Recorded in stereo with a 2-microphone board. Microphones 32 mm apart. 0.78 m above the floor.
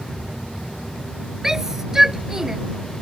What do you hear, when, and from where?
1.4 s a shout: 15° right (ahead or behind)